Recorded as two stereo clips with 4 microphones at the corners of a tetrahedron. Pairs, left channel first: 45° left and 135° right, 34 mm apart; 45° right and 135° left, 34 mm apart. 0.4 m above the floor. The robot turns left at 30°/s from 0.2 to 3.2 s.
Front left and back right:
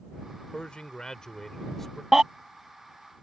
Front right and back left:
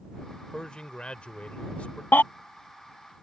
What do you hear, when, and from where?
0.5 s a man speaking: 5° left; by 2.0 s 40° right
2.1 s a baby crying: 55° right; by 2.2 s 60° right